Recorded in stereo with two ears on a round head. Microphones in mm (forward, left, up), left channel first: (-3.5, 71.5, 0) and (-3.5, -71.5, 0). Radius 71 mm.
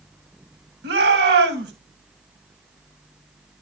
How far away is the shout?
About 3.5 m.